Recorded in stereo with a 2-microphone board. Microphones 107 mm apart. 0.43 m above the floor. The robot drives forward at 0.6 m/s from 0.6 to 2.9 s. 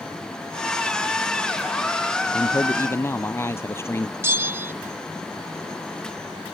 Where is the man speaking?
25° left (ahead or behind).